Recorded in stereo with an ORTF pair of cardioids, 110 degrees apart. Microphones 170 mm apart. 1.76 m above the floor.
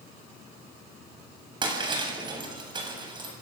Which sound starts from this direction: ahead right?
Breaking glass, at 1.6 s.